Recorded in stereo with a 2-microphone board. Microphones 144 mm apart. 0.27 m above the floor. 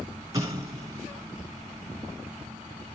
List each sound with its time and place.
0.3 s an explosion: 25° right (ahead or behind), 3 m